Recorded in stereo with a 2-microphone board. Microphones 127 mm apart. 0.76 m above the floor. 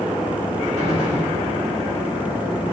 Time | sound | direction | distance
0.8 | a gunshot | 65° right (ahead or behind) | 3 m